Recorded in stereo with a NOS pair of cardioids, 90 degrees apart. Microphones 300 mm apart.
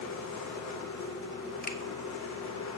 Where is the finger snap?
30° left, 1.8 m.